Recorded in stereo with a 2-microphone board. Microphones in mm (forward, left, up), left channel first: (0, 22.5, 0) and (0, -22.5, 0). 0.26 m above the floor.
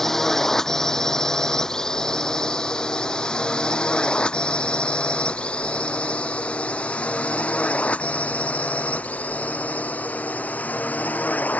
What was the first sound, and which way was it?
A drone, 10° left (ahead or behind).